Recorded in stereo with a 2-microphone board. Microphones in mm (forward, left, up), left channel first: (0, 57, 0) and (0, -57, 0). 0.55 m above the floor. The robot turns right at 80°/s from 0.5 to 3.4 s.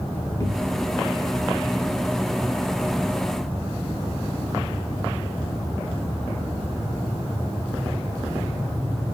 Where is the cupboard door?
120° left, 0.8 m; by 0.9 s 155° left, 0.8 m.